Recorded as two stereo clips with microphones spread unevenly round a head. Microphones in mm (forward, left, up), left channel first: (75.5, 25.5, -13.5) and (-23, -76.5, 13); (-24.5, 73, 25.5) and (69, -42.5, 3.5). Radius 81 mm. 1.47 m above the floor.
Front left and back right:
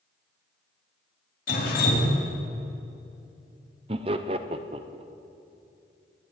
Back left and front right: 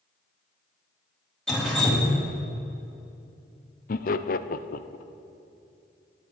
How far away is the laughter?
About 0.7 m.